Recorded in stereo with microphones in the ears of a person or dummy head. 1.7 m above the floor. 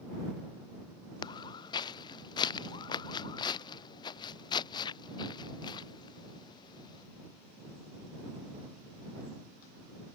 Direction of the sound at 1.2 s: 25° left (ahead or behind).